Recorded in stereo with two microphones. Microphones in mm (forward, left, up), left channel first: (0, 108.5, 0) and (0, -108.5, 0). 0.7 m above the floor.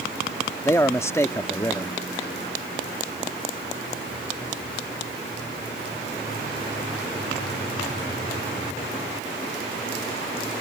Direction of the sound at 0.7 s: 15° left (ahead or behind).